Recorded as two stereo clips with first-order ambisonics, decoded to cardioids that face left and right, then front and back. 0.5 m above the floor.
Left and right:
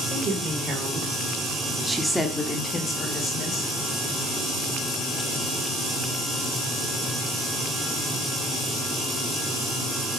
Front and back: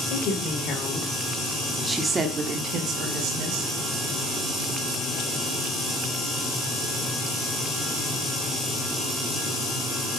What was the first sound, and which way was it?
A woman speaking, 35° right.